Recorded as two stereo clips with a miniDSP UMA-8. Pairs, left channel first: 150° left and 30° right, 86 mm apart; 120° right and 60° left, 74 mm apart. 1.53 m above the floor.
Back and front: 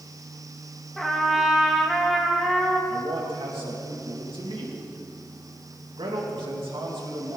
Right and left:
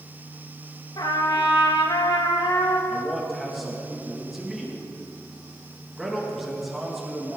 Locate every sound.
1.0 s a trumpet: 120° right, 1.8 m
2.9 s a man speaking: 25° right, 2.5 m